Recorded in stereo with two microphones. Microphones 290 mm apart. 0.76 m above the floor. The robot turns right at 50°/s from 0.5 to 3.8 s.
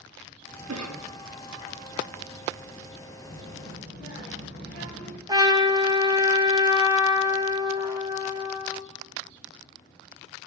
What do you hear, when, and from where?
0.7 s a cough: 60° right (ahead or behind), 1.1 m; by 1.1 s 70° right (ahead or behind), 1.1 m
3.2 s a child speaking: 10° left (ahead or behind), 2.5 m; by 5.2 s 35° left (ahead or behind), 2.5 m
5.3 s a trumpet: 15° right (ahead or behind), 0.9 m